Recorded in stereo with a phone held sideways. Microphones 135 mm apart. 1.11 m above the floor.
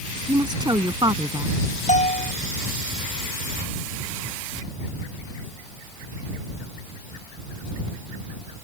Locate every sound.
0.3 s a woman speaking: 30° right (ahead or behind)
1.9 s a bell: 65° left (ahead or behind)